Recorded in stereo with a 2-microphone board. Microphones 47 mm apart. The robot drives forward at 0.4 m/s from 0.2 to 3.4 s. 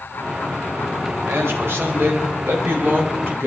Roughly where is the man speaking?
Right.